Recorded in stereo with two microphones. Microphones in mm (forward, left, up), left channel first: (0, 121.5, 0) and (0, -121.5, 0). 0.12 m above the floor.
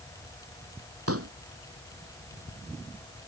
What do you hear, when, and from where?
1.1 s a pop: 70° right (ahead or behind)